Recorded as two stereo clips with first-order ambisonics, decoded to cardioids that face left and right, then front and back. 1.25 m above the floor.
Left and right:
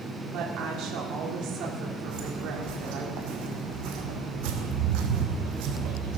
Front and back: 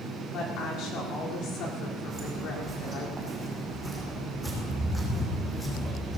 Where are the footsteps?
115° right, 4 m; by 6.2 s 75° right, 3.5 m.